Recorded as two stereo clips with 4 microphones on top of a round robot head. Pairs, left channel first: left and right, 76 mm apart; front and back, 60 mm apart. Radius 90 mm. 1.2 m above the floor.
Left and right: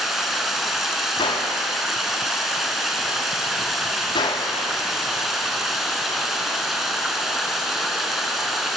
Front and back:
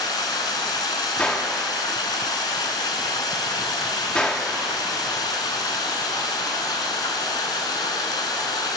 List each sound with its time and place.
0.0 s running water: straight ahead, 2 m
1.2 s a gunshot: 75° left, 3.5 m